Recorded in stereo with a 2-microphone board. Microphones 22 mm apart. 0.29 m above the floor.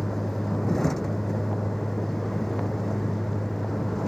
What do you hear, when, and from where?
0.0 s a vehicle: 20° left (ahead or behind)